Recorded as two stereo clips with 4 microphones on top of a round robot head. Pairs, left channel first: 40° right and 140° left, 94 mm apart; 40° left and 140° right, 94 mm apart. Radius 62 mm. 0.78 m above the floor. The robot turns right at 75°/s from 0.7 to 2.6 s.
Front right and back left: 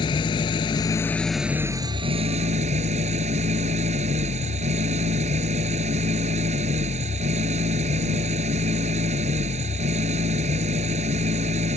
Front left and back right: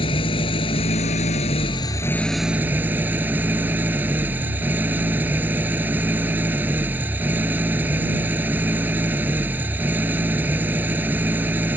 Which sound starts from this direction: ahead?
An engine running, at 0.0 s.